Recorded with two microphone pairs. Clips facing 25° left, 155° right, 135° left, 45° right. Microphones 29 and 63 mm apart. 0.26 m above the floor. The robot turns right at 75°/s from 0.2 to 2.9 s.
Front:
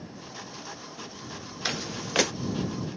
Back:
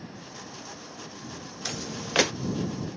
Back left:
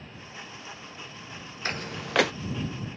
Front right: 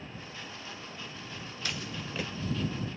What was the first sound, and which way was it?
Footsteps, 85° left.